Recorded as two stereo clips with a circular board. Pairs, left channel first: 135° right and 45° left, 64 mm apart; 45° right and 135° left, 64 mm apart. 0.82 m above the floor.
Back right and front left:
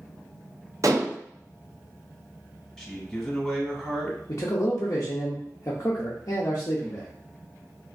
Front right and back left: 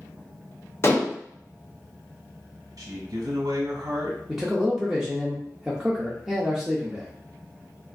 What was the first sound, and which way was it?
Dishes clattering, 5° left.